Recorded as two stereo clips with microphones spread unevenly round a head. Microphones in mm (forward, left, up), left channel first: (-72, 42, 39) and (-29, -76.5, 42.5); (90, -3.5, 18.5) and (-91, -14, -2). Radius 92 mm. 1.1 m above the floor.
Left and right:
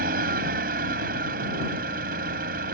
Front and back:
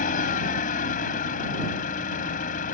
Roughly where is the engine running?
Ahead right.